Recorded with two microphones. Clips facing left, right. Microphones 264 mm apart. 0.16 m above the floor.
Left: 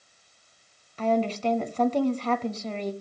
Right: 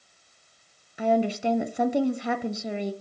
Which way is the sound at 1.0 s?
10° right (ahead or behind).